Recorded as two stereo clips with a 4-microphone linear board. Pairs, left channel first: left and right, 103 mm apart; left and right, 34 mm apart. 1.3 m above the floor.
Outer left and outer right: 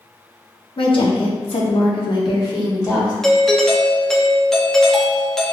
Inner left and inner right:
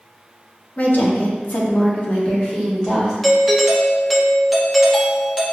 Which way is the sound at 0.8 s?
55° left (ahead or behind).